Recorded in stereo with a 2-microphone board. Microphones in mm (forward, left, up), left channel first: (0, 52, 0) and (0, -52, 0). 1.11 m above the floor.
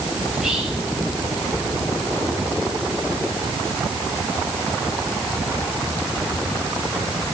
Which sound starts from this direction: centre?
Whispering, at 0.3 s.